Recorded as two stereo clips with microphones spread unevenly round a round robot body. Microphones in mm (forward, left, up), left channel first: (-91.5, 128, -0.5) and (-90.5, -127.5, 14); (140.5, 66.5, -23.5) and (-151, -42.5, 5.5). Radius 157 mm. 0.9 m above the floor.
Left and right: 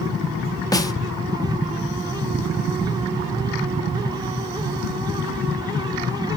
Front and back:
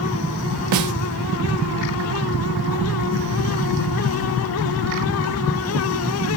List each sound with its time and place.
0.7 s a snare drum: 165° left, 0.8 m